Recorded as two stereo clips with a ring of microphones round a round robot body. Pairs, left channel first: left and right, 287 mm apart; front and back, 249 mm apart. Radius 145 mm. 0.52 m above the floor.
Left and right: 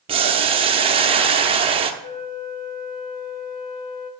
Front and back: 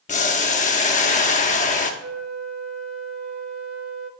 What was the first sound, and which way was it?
Boiling, 35° right.